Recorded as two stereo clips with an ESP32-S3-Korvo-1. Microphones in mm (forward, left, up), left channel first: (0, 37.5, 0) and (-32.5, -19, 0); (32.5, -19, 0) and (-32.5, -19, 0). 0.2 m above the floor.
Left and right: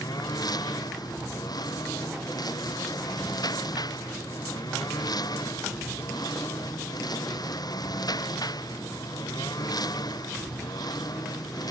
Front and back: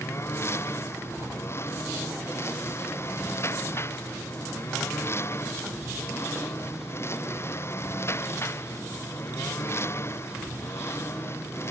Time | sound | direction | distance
0.0 | a lawn mower | 50° left | ?